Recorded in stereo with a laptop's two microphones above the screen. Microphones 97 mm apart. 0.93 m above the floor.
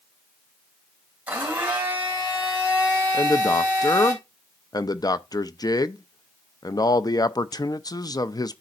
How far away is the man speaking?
About 0.5 m.